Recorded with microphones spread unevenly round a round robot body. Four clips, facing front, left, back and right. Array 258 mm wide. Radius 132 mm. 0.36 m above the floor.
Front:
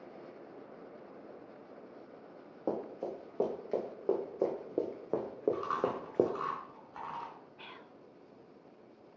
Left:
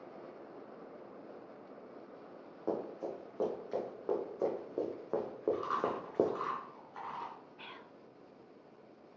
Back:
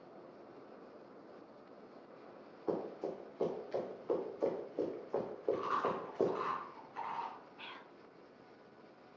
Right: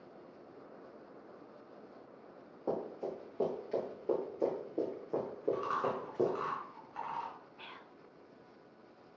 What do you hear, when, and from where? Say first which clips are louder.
2.7 s running footsteps: even, front 2 dB; straight ahead, 4.5 m; by 6.3 s 20° left, 1.6 m
5.5 s chewing: right 2 dB, front 2 dB; 15° right, 4.5 m
7.6 s whispering: left 1 dB, front 1 dB; 30° left, 0.8 m